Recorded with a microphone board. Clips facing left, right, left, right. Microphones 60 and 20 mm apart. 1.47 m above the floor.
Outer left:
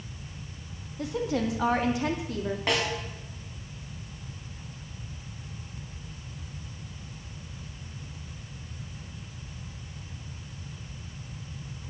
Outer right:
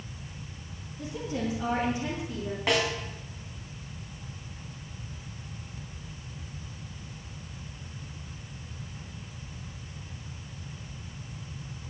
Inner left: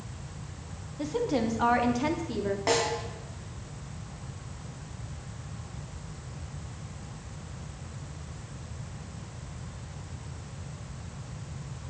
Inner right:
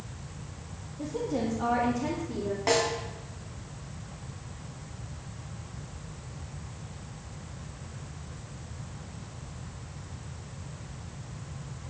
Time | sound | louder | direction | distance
1.0 | a woman speaking | outer left 4 dB, inner left 3 dB | 85° left | 2.5 m
2.7 | a snare drum | outer right 2 dB, inner right 1 dB | centre (ahead or behind) | 3 m